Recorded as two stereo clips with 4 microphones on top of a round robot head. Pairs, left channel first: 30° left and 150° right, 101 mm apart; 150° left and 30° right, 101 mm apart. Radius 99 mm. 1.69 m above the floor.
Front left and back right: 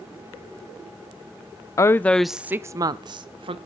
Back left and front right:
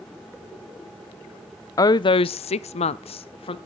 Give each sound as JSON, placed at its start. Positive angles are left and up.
{"t": 1.8, "sound": "a woman speaking", "azimuth_deg": 90, "distance_m": 0.6}